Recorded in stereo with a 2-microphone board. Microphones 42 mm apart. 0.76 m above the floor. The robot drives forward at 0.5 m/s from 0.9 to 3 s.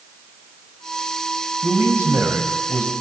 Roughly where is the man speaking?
Right.